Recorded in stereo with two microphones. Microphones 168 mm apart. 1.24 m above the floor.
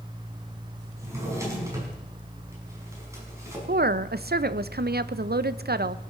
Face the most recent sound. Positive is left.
turn(degrees=-70)  # may be behind; listen again after turning